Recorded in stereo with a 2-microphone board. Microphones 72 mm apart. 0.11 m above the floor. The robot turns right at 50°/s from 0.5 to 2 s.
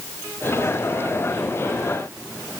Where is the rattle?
I don't hear a rattle.